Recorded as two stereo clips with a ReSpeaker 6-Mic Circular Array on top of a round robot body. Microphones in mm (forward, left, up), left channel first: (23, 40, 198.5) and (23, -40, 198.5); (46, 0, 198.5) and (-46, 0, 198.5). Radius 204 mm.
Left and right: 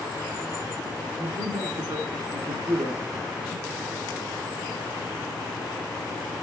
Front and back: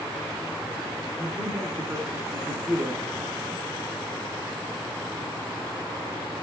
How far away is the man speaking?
About 2 m.